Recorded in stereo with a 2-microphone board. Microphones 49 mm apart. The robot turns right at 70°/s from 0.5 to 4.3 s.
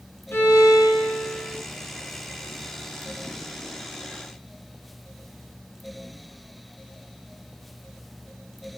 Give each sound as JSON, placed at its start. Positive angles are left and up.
{"t": 0.3, "sound": "a violin", "azimuth_deg": 45, "distance_m": 3.0}